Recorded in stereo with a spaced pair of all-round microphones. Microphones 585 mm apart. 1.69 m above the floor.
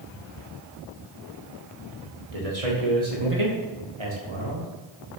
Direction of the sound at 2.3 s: 75° right (ahead or behind).